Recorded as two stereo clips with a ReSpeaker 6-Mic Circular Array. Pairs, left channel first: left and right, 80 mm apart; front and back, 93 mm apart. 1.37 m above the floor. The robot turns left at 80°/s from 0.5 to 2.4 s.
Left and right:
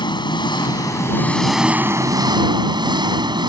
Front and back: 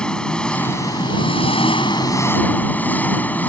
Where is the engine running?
80° left; by 3.5 s 70° right.